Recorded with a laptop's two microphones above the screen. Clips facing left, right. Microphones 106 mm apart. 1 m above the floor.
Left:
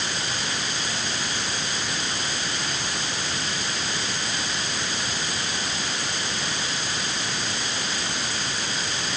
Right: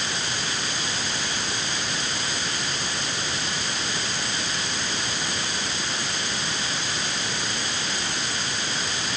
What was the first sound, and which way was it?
Only background noise.